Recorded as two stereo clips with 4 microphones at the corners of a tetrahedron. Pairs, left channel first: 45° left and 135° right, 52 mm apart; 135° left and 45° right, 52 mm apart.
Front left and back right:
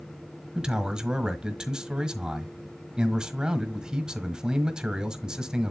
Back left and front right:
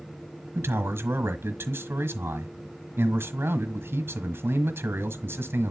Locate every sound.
0.6 s a man speaking: 65° right, 1.4 m